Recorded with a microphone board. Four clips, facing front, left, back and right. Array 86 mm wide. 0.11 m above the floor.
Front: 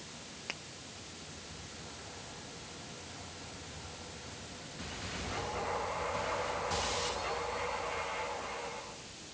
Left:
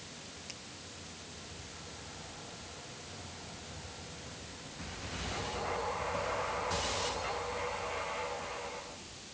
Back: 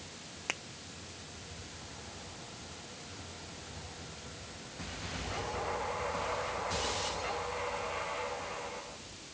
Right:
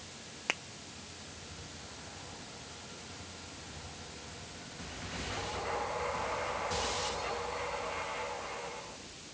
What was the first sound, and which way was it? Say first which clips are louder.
A finger snap: right 13 dB, back 6 dB; 110° right.